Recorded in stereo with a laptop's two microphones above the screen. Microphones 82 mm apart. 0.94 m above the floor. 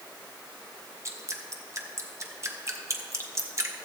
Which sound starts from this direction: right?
Dripping, at 1.1 s.